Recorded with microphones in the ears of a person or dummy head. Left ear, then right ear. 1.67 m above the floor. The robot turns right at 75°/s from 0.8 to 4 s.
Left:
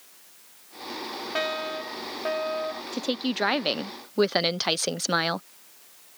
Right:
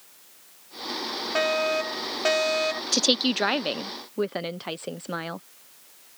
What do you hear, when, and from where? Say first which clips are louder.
1.4 s a fire alarm: right 5 dB; 170° right; by 2.8 s 60° right
2.9 s a woman speaking: right 8 dB; 40° right; by 5.5 s 40° left